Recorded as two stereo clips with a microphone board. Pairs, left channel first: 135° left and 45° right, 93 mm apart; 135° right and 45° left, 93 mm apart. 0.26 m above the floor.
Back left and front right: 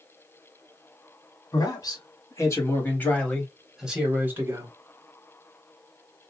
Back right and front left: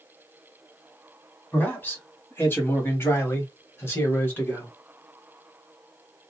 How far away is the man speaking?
About 1.5 m.